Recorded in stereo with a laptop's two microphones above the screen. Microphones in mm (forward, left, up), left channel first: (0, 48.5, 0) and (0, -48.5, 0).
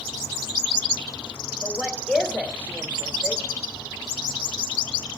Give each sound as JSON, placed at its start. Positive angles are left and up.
{"t": 1.6, "sound": "a woman speaking", "side_deg": -25, "distance_m": 3.0}